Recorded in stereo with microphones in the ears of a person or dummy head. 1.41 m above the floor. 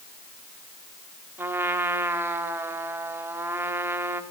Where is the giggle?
No giggle in this recording.